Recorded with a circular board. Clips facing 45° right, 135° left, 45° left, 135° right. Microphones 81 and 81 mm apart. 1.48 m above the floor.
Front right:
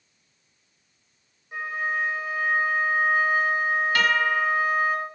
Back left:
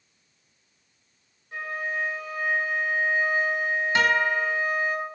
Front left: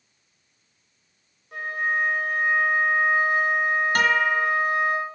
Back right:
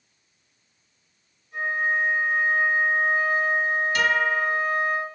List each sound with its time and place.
1.5 s a flute: 30° left, 6 m
4.0 s a guitar: 70° left, 2.5 m